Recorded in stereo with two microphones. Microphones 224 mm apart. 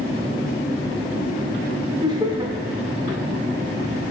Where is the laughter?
20° right (ahead or behind), 0.9 m.